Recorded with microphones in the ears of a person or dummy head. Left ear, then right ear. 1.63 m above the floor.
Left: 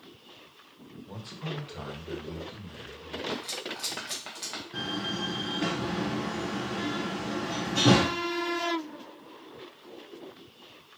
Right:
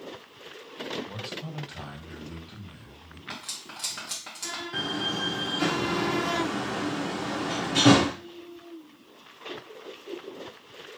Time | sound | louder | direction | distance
1.1 | a man speaking | right 3 dB | 25° right (ahead or behind) | 0.6 m
3.3 | cutlery clinking | even | 10° left (ahead or behind) | 0.7 m
4.7 | a door slam | right 4 dB | 30° right (ahead or behind) | 0.6 m